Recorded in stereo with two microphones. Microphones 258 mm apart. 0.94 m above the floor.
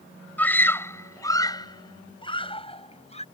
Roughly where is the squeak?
I don't hear a squeak.